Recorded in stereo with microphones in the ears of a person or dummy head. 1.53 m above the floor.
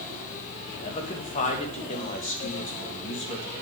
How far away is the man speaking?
About 2.5 m.